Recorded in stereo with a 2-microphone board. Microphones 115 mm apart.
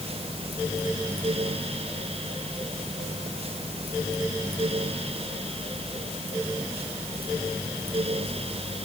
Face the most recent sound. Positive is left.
No sound to turn to.